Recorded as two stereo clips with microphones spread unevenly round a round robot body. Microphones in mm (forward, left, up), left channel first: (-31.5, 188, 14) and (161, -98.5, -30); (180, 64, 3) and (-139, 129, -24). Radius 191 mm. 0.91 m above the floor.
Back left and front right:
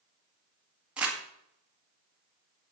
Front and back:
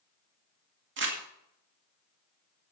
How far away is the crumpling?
About 1.7 m.